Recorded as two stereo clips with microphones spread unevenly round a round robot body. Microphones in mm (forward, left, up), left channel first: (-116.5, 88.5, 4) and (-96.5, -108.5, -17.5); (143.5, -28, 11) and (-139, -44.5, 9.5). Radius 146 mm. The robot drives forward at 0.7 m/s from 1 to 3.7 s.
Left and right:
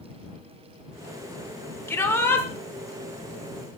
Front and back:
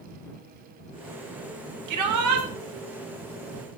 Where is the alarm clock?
I don't hear an alarm clock.